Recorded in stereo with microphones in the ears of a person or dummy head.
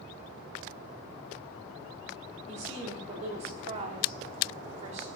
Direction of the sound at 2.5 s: 35° right (ahead or behind).